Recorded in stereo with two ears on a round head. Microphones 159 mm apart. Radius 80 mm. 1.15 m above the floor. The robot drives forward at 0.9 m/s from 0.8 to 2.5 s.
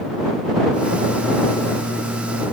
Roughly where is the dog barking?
I don't hear a dog barking.